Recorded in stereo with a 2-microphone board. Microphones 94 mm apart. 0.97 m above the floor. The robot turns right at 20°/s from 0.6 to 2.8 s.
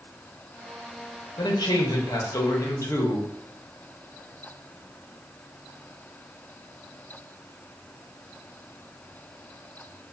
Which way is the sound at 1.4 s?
50° left (ahead or behind).